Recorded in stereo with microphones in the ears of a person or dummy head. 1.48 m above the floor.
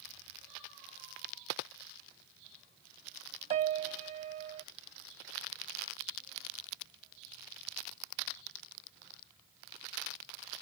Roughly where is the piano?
Right.